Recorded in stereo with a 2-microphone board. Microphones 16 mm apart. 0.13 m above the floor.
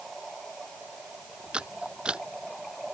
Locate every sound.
1.5 s a camera shutter: 70° right (ahead or behind)